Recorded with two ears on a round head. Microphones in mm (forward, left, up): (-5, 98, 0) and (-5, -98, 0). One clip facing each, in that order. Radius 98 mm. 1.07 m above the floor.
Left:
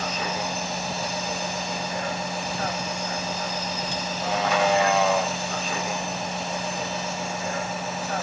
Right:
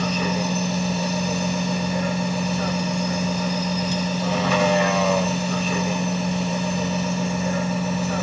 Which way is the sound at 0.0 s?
85° right.